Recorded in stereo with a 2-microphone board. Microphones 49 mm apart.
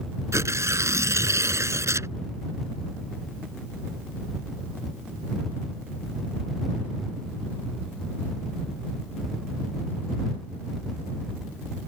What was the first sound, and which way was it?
Tearing paper, 75° right (ahead or behind).